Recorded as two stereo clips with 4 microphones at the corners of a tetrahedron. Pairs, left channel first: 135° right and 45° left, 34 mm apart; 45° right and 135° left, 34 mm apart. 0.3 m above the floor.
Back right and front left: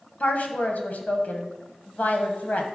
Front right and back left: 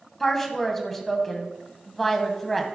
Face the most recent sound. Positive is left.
turn(degrees=-125)